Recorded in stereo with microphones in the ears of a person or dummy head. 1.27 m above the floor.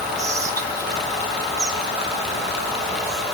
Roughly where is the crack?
I don't hear a crack.